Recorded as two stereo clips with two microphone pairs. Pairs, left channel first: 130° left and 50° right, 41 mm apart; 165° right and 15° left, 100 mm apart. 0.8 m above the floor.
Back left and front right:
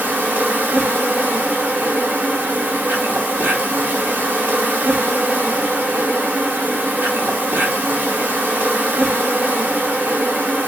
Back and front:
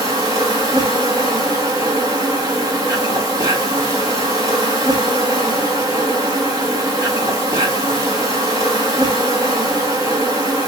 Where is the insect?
30° right, 1.0 m.